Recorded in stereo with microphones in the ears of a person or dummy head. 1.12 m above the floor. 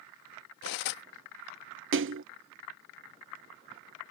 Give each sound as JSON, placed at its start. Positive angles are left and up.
{"t": 0.6, "sound": "cutlery clinking", "side_deg": 55}
{"t": 1.9, "sound": "a splash", "side_deg": -55}